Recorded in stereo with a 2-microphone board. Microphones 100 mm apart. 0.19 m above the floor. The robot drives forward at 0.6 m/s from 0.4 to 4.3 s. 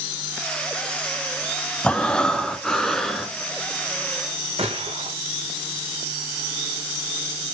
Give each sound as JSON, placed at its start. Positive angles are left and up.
{"t": 1.8, "sound": "breathing", "side_deg": 10, "distance_m": 0.6}
{"t": 4.6, "sound": "a gunshot", "side_deg": -80, "distance_m": 4.0}